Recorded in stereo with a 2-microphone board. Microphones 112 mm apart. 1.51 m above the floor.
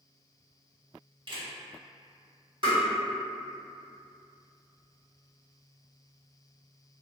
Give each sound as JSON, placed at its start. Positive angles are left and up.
{"t": 1.3, "sound": "a camera shutter", "side_deg": -45, "distance_m": 0.7}
{"t": 2.6, "sound": "tapping", "side_deg": -50, "distance_m": 1.6}